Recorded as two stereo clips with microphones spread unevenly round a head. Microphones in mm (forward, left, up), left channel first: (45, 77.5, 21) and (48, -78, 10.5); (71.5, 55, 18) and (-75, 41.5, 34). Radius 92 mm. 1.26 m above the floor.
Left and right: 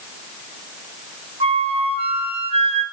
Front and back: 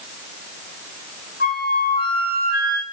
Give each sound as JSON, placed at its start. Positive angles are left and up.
{"t": 1.4, "sound": "a flute", "azimuth_deg": -35, "distance_m": 3.5}